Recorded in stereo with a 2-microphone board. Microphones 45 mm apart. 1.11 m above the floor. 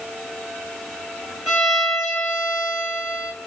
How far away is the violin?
About 1.9 m.